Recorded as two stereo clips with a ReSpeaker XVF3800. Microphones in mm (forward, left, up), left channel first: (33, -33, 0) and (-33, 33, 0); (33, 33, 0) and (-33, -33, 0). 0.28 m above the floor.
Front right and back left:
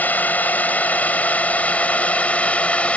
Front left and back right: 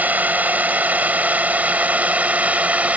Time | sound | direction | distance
0.0 | a drone | 90° right | ?